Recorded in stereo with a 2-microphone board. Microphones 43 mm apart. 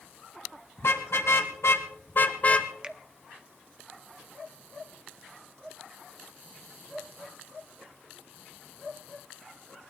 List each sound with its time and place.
0.8 s a car horn: 75° left (ahead or behind), 2 m; by 2.7 s 25° left (ahead or behind), 1.1 m
2.8 s a finger snap: 20° right (ahead or behind), 0.7 m